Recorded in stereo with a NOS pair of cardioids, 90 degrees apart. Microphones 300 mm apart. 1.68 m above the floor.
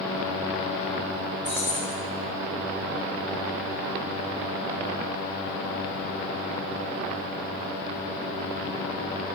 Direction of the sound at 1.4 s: 40° left.